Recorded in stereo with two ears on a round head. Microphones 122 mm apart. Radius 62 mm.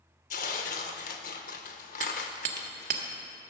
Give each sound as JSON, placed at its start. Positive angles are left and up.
{"t": 0.3, "sound": "tearing paper", "side_deg": 65, "distance_m": 0.9}
{"t": 2.0, "sound": "hammering", "side_deg": -65, "distance_m": 1.2}